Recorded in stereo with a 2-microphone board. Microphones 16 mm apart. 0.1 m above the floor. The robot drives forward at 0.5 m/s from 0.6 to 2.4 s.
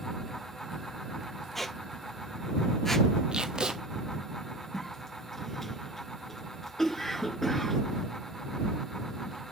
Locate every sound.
1.6 s a squeak: 10° left (ahead or behind), 0.9 m; by 3.1 s 20° left (ahead or behind), 0.6 m
3.3 s tape being pulled: 70° right (ahead or behind), 0.8 m
4.7 s a cough: 15° left (ahead or behind), 1.8 m